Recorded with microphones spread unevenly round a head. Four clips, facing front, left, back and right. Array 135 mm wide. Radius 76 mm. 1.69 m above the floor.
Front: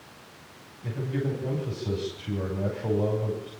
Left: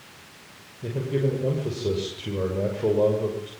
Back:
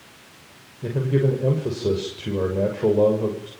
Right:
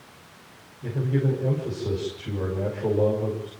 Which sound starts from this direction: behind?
A man speaking, at 0.8 s.